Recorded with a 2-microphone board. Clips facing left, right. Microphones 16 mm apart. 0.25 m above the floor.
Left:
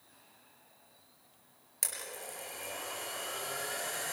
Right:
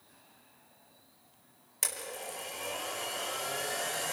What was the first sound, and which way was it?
A blender, 10° right (ahead or behind).